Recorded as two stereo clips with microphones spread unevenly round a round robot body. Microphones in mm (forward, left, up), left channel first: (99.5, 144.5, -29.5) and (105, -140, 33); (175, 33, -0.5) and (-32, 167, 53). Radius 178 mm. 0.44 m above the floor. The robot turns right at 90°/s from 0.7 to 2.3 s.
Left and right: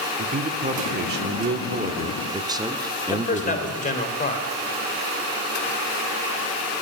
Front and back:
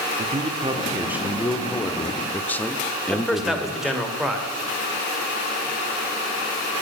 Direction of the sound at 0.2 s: 145° right.